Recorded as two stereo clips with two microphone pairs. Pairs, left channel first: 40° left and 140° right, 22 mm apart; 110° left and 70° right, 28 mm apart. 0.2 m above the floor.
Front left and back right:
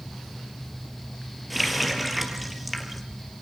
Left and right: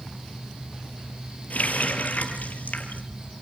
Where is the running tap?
135° left, 3.5 m.